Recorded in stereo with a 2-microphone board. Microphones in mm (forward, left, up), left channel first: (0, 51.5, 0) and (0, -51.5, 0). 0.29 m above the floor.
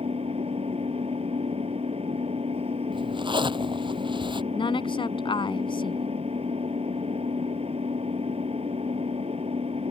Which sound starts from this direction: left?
A woman speaking, at 4.5 s.